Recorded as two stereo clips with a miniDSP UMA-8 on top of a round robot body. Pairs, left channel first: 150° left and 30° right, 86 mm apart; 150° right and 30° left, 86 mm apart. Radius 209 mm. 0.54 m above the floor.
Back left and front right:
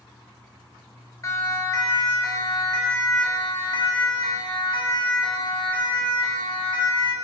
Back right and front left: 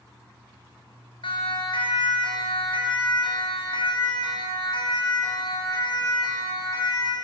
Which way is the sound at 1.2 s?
160° right.